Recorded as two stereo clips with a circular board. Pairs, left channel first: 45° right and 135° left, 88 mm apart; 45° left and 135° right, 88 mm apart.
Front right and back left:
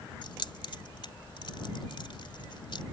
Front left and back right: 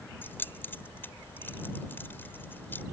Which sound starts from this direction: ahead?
Keys jangling, at 0.2 s.